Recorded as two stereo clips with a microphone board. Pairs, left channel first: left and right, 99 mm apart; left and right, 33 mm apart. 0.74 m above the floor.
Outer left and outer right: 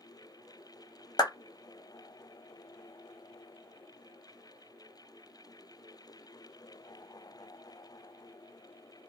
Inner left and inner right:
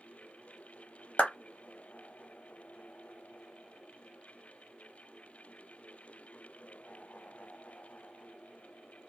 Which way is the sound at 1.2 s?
45° left (ahead or behind).